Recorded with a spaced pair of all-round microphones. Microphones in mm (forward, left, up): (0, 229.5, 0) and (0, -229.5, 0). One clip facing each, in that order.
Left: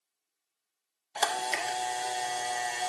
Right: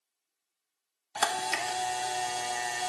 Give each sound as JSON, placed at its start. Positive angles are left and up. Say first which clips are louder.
{"t": 1.1, "sound": "a camera shutter", "louder": "even", "side_deg": -25, "distance_m": 0.6}